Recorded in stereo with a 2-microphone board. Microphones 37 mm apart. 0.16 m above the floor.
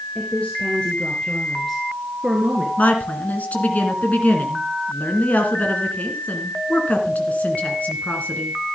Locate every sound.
0.1 s a woman speaking: 40° left (ahead or behind), 2.5 m; by 2.7 s 15° right (ahead or behind), 2 m
2.8 s a woman speaking: 45° left (ahead or behind), 1.8 m